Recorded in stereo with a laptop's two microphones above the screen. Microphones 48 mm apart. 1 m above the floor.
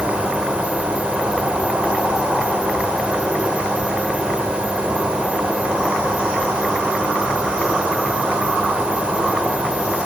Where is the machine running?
20° right (ahead or behind), 3 m.